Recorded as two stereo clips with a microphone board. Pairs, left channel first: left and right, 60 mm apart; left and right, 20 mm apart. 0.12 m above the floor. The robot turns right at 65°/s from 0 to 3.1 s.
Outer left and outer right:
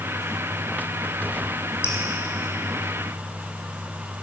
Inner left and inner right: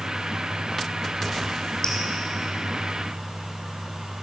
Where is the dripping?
40° left (ahead or behind), 2.5 m; by 2.0 s 50° left (ahead or behind), 2.5 m.